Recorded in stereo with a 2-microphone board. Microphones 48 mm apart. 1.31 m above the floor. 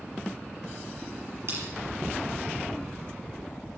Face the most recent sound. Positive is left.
turn(degrees=-60)  # may be behind; listen again after turning